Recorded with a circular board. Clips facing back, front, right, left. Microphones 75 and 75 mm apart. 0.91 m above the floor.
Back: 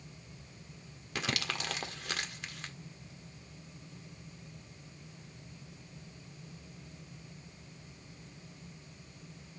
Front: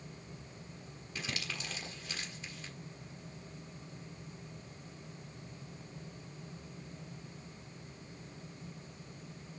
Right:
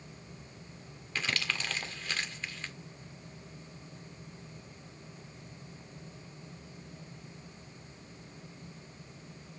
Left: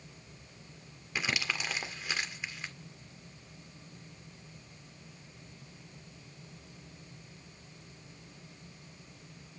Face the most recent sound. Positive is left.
turn(degrees=165)